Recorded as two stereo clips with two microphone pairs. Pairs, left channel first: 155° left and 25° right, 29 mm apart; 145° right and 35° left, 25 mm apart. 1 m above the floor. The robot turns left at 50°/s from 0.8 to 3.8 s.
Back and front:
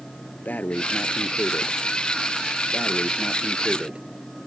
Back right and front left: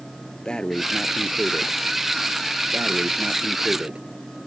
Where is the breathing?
165° left; by 4.0 s 15° left.